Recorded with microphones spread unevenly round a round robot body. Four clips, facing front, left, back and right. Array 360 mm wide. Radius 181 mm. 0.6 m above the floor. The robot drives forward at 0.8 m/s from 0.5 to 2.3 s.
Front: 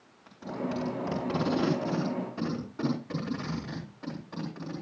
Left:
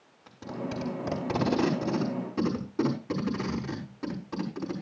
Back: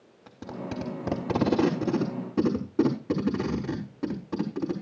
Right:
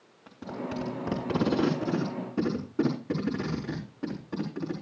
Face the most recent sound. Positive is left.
turn(degrees=-170)